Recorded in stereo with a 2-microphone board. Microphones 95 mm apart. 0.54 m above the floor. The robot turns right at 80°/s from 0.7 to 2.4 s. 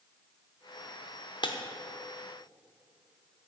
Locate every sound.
1.4 s breaking glass: 55° left (ahead or behind), 0.8 m; by 1.6 s 60° left (ahead or behind), 0.8 m